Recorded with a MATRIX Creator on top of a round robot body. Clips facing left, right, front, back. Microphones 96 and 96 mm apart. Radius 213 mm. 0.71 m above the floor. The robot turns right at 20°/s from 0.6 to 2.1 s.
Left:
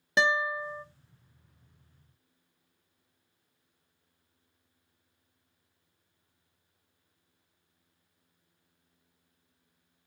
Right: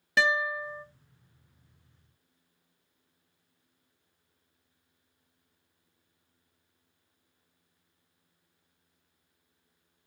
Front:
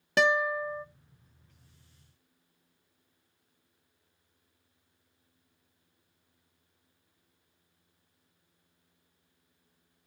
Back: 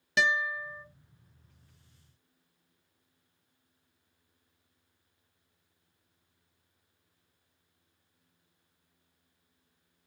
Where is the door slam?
I don't hear a door slam.